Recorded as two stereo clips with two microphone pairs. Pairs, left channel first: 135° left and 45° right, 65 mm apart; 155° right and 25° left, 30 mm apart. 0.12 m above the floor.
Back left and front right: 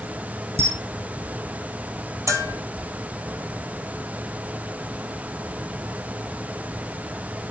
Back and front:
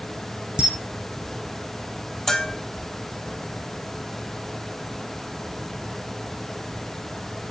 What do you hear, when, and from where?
0.6 s a camera shutter: 20° right, 1.8 m
2.3 s a bell: 80° right, 1.3 m